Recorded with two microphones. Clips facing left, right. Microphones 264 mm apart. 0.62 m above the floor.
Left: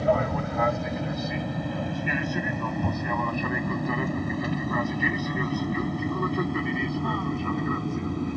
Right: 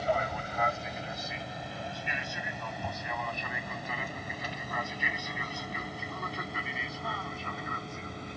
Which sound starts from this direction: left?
An aircraft, at 0.0 s.